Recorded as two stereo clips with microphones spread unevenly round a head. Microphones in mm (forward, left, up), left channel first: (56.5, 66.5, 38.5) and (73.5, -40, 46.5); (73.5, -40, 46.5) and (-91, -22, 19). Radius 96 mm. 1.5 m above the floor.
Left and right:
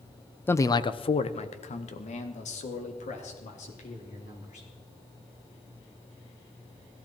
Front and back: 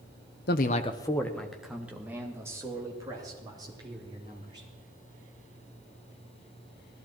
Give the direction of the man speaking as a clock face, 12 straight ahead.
11 o'clock.